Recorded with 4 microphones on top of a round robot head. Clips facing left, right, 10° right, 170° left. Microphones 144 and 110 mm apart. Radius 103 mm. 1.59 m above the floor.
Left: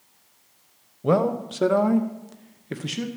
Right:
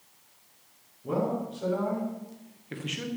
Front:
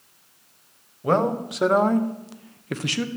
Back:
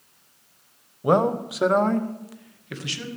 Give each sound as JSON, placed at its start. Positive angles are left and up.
{"t": 1.0, "sound": "a man speaking", "azimuth_deg": 95, "distance_m": 1.3}